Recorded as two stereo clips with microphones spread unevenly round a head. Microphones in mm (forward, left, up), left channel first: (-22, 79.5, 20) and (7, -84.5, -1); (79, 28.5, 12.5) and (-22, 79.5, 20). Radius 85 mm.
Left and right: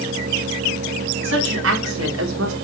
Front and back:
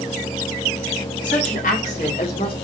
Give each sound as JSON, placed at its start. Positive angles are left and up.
{"t": 1.2, "sound": "a woman speaking", "azimuth_deg": -60, "distance_m": 4.0}